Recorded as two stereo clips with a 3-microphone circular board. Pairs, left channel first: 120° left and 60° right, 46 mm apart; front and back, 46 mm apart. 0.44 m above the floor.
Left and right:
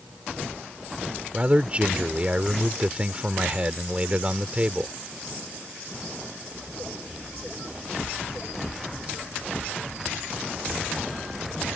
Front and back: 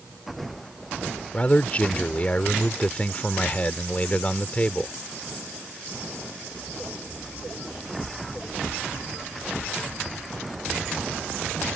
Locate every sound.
1.3 s a man speaking: 30° right